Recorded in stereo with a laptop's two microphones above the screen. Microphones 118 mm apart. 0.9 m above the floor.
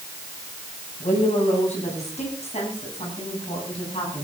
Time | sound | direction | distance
1.0 | a woman speaking | 75° left (ahead or behind) | 8 m